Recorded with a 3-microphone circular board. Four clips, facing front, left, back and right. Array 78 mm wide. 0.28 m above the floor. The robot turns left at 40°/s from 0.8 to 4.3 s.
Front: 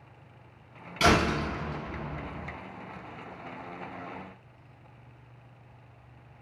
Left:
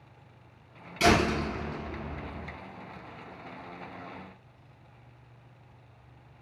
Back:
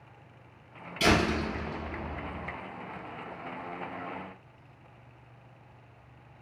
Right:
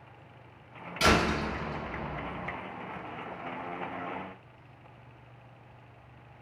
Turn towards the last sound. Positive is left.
turn(degrees=-135)